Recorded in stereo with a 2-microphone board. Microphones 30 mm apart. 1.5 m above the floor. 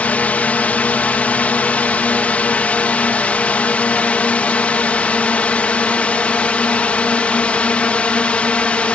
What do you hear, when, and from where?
0.0 s a drone: 55° left (ahead or behind); by 9.0 s 45° left (ahead or behind)